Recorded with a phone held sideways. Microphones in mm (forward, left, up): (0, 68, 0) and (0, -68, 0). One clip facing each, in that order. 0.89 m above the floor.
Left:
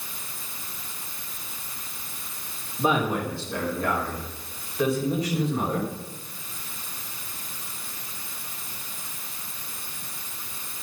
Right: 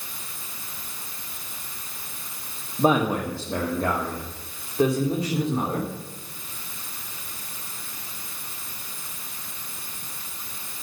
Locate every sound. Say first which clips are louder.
2.8 s a man speaking: right 3 dB; 40° right (ahead or behind), 1.9 m; by 5.9 s 25° right (ahead or behind), 4 m